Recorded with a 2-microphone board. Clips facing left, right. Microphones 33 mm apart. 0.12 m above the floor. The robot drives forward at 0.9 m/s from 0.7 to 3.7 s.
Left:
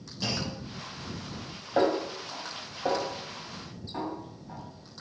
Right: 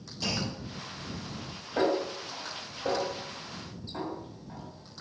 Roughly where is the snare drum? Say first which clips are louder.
Left 2 dB; left.